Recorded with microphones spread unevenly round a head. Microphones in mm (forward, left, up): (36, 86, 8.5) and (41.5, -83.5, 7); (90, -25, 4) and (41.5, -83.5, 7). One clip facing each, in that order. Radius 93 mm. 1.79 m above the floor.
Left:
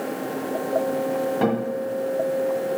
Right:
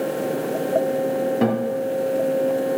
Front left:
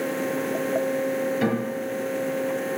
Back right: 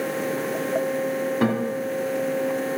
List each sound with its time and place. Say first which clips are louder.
1.4 s a guitar: right 1 dB, back right 3 dB; 155° right, 2.0 m